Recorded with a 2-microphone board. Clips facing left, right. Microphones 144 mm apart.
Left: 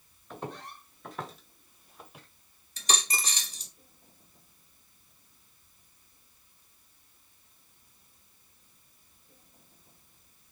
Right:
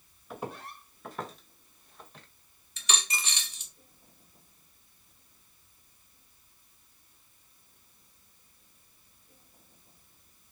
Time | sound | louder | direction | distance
0.3 | footsteps | right 1 dB | 5° right (ahead or behind) | 3 m
2.8 | a dropped coin | left 2 dB | 35° left (ahead or behind) | 1.1 m